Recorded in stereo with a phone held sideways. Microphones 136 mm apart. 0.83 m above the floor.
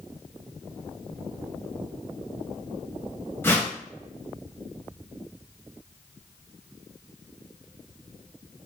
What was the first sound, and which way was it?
A whoosh, 15° left (ahead or behind).